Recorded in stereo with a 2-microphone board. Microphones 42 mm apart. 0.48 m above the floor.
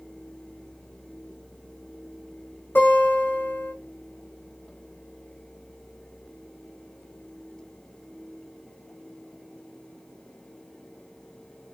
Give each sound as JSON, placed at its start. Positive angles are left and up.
{"t": 2.8, "sound": "a guitar", "side_deg": 70, "distance_m": 2.5}